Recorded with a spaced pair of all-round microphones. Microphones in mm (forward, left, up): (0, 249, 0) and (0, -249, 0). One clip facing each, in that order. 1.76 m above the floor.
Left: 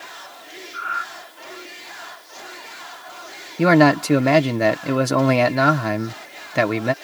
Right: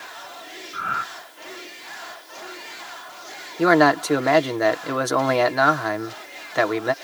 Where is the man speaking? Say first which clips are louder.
Left 3 dB; 50° left (ahead or behind).